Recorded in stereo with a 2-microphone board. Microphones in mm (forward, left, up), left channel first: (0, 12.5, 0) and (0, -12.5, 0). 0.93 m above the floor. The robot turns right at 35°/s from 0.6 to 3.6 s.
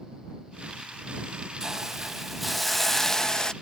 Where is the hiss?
30° right; by 3.5 s 35° left.